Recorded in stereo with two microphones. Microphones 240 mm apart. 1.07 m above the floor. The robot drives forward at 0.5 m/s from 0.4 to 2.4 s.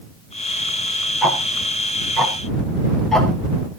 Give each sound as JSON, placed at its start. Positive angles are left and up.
{"t": 1.2, "sound": "ticking", "side_deg": 0, "distance_m": 4.5}